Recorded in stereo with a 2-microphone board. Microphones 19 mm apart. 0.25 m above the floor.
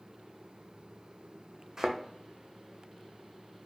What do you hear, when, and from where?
1.8 s a thud: 35° right (ahead or behind), 0.6 m